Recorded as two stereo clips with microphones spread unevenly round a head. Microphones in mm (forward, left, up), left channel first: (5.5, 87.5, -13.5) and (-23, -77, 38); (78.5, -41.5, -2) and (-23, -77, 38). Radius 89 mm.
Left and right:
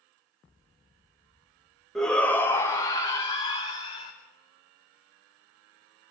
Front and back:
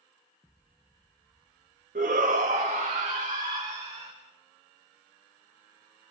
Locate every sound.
1.9 s a shout: 160° left, 1.7 m; by 4.1 s 130° left, 3 m